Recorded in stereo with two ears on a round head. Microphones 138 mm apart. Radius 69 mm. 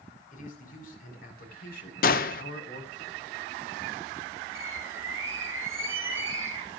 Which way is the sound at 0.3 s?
55° left (ahead or behind).